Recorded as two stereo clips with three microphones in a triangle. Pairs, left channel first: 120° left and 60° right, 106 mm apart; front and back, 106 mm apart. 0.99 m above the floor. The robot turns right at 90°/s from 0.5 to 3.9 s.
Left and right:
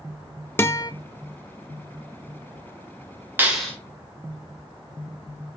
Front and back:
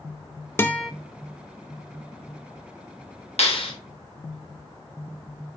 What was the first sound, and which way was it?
A guitar, 60° left.